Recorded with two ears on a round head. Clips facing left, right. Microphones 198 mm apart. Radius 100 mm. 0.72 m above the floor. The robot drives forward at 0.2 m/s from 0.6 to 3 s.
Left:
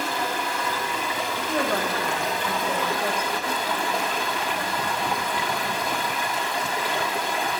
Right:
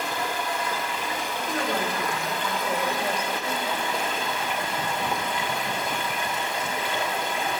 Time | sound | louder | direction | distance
0.0 | running water | left 2 dB | 60° left (ahead or behind) | 1.8 m
1.4 | a woman speaking | left 3 dB | 80° left | 3 m